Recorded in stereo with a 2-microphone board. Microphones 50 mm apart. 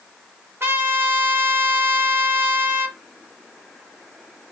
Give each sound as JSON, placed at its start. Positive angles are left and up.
{"t": 0.6, "sound": "a trumpet", "side_deg": -55, "distance_m": 1.2}